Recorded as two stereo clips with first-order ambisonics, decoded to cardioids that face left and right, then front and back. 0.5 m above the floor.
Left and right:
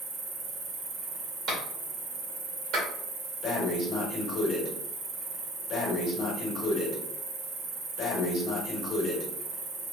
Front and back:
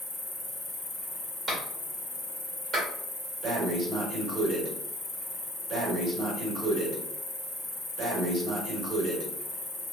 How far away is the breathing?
About 1.4 m.